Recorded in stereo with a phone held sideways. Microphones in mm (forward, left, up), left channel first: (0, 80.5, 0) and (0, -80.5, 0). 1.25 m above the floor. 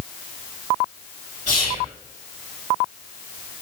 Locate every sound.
1.5 s whispering: 40° right (ahead or behind), 1.6 m